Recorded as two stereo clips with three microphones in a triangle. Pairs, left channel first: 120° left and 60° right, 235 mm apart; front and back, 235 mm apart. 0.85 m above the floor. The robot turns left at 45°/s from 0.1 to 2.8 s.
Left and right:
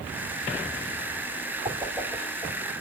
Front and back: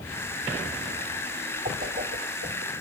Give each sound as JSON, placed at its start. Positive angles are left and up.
{"t": 1.6, "sound": "a whoosh", "azimuth_deg": -125, "distance_m": 2.5}